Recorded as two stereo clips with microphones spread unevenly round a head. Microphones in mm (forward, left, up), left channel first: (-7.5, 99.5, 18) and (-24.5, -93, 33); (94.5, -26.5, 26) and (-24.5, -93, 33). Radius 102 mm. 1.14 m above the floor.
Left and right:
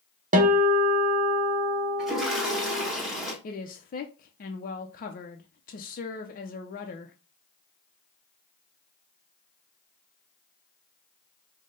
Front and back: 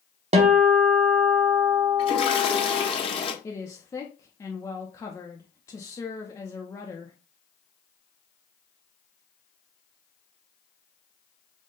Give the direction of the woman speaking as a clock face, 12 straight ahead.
9 o'clock.